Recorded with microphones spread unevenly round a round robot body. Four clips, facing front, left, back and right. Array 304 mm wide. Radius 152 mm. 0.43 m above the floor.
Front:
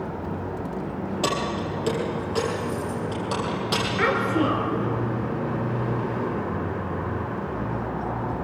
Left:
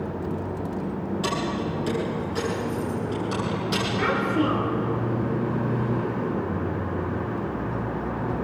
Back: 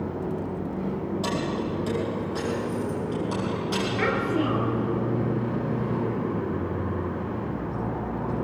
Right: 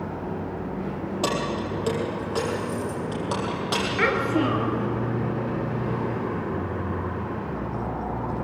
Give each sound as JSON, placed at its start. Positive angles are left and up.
{"t": 1.2, "sound": "keys jangling", "azimuth_deg": -45, "distance_m": 8.5}
{"t": 4.0, "sound": "a child speaking", "azimuth_deg": -75, "distance_m": 6.5}